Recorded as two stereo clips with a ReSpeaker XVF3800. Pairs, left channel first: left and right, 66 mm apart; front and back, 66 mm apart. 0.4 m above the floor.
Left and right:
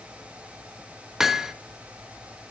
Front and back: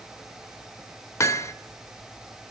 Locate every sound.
1.2 s hammering: 10° right, 0.5 m